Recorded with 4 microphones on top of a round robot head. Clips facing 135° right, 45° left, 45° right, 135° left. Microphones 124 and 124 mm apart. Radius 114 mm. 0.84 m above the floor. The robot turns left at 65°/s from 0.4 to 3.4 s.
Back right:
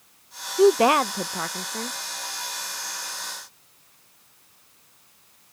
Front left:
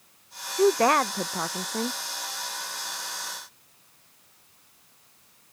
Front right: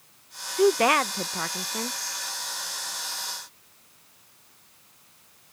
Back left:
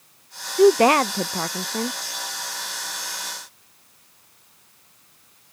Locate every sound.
0.6 s a woman speaking: 175° left; by 2.0 s 85° left